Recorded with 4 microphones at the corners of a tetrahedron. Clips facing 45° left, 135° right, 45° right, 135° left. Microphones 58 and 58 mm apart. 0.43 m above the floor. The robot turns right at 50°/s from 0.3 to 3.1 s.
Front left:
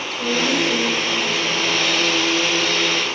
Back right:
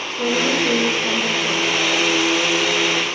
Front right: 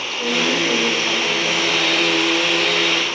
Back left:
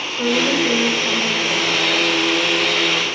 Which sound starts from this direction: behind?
A woman speaking, at 0.1 s.